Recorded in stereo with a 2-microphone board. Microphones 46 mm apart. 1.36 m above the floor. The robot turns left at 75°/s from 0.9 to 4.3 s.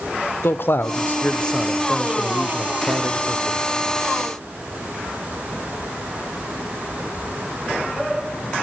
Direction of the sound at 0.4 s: 65° left.